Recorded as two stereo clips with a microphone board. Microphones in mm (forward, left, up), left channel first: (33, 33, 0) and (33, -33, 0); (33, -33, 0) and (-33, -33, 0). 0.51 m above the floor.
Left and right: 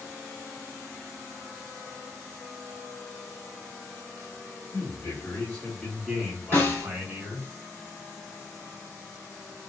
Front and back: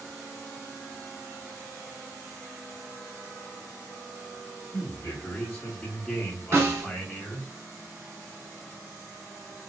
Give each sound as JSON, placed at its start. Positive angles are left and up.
{"t": 4.7, "sound": "a man speaking", "azimuth_deg": 50, "distance_m": 1.3}
{"t": 6.5, "sound": "a snare drum", "azimuth_deg": 140, "distance_m": 1.3}